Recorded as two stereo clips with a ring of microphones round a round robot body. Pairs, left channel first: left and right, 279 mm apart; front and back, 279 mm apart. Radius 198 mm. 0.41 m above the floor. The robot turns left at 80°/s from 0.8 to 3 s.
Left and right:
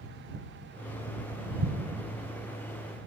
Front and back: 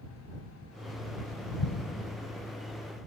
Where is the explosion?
30° right; by 2.0 s 65° right.